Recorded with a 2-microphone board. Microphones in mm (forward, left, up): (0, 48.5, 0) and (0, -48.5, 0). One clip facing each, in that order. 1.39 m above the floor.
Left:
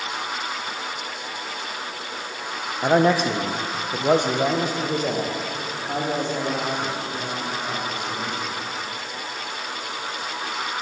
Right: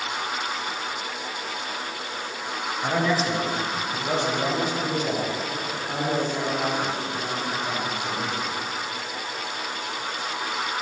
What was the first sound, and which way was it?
A man speaking, 45° left (ahead or behind).